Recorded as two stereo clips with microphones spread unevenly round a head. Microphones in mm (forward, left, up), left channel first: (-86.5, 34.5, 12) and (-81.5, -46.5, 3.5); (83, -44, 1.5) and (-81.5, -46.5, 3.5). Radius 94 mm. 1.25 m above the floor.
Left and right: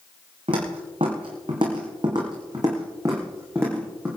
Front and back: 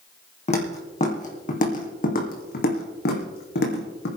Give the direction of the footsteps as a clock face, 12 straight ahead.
1 o'clock.